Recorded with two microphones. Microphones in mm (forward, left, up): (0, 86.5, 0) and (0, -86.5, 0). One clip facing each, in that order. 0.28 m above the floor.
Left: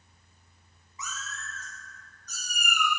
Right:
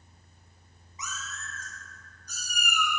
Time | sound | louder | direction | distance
1.0 | a cat meowing | even | 20° right (ahead or behind) | 1.1 m